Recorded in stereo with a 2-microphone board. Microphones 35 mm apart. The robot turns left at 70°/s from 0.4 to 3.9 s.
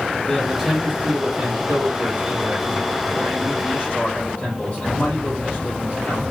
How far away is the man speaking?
About 2 m.